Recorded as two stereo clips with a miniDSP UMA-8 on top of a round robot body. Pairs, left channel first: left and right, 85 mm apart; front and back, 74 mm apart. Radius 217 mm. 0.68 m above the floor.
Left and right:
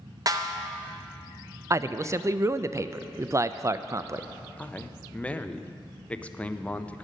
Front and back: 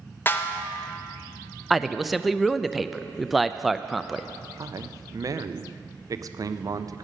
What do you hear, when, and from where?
0.3 s a snare drum: 55° right, 0.9 m
1.7 s a man speaking: 95° right, 0.5 m
4.6 s a man speaking: 160° left, 0.6 m